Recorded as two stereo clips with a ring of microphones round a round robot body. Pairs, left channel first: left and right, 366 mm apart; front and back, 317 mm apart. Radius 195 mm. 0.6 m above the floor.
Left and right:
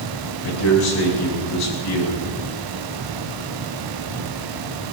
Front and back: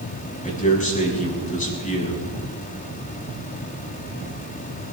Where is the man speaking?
65° left, 6 m.